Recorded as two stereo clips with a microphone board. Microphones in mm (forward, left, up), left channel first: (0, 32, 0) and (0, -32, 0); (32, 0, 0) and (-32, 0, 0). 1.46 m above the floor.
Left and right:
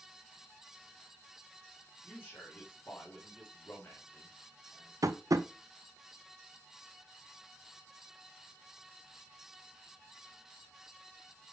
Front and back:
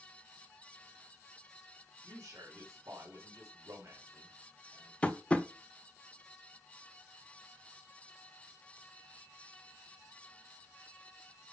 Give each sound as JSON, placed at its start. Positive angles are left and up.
{"t": 2.0, "sound": "a man speaking", "azimuth_deg": 150, "distance_m": 3.0}
{"t": 5.0, "sound": "tapping", "azimuth_deg": -70, "distance_m": 0.7}